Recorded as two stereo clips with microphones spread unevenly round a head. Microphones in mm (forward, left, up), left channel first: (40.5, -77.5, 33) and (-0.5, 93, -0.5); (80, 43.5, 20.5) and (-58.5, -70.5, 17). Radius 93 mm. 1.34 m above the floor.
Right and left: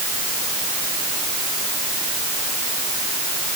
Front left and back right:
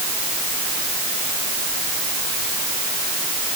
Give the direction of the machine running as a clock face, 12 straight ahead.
I don't hear a machine running.